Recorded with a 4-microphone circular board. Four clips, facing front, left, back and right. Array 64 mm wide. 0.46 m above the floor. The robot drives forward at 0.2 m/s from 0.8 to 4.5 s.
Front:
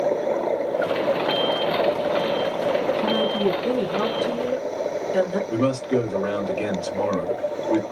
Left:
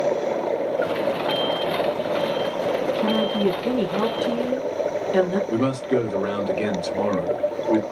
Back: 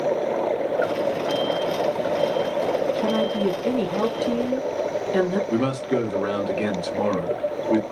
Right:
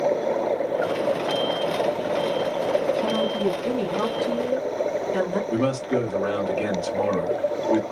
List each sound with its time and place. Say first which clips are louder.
3.0 s a woman speaking: left 2 dB, even; 95° left, 1.3 m; by 5.4 s 110° left, 1.3 m
5.5 s a man speaking: left 1 dB, front 1 dB; 140° left, 1.2 m